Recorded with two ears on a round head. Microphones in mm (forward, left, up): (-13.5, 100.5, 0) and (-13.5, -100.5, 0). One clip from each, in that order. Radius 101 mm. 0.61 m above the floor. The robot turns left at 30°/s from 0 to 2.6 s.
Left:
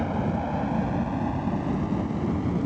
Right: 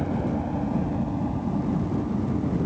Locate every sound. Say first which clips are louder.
0.0 s a helicopter: even; 40° left (ahead or behind); by 2.7 s 75° left (ahead or behind)